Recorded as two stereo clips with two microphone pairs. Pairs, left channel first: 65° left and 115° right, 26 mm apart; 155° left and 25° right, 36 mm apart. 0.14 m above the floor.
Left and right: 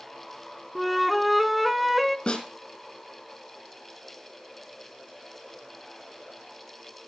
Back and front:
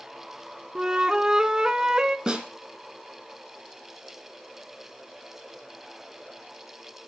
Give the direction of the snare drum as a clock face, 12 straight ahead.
11 o'clock.